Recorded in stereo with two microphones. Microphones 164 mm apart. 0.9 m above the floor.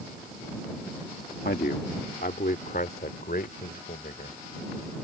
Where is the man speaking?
70° left (ahead or behind); by 4.4 s 65° left (ahead or behind).